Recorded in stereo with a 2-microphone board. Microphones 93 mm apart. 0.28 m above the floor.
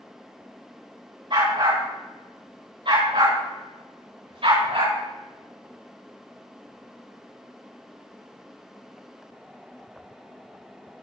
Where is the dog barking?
50° right (ahead or behind), 7 m; by 5.0 s 60° right (ahead or behind), 9.5 m.